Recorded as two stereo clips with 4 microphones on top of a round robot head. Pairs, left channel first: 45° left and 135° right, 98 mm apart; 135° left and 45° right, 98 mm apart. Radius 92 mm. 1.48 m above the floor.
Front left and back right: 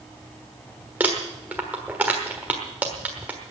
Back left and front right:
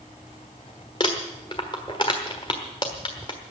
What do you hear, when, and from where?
1.0 s crumpling: 155° left, 1.2 m